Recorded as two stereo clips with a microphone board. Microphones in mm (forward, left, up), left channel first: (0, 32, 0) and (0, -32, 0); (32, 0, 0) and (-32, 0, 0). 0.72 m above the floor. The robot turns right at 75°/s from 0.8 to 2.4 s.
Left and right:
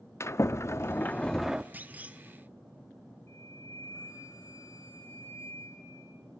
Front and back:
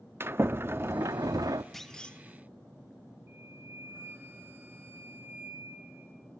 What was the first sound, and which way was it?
A sliding door, 130° left.